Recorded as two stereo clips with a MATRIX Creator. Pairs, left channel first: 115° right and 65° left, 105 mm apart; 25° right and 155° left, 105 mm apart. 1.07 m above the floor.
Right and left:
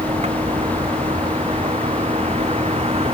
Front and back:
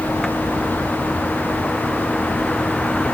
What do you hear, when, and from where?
0.0 s a vehicle: 60° left